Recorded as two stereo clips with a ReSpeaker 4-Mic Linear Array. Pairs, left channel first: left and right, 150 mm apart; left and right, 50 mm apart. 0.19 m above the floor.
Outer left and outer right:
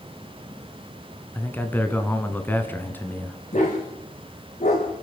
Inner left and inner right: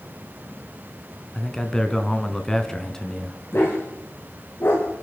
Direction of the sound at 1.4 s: 15° left (ahead or behind).